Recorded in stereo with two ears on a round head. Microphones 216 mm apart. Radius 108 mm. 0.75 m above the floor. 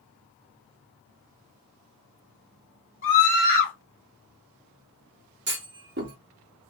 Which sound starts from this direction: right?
A clunk, at 5.5 s.